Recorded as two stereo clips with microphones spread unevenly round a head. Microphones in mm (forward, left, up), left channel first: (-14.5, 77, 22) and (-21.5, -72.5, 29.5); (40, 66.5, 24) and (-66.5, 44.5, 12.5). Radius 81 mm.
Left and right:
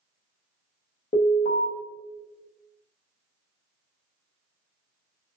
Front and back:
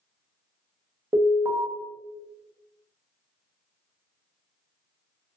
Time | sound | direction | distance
1.1 | an alarm | 130° left | 0.6 m